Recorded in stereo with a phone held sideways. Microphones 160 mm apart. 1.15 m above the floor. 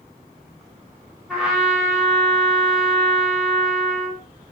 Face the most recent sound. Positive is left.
turn(degrees=-5)  # may be behind; listen again after turning